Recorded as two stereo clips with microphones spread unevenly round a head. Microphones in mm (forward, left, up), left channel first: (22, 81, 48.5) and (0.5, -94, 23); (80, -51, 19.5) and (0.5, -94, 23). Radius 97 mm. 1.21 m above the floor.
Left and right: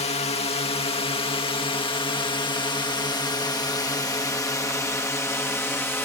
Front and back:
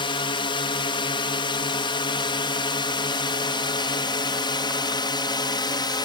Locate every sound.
0.0 s a drone: 30° left; by 6.0 s straight ahead